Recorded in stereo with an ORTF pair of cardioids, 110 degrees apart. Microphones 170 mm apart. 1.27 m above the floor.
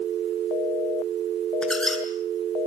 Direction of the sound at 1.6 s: 5° left.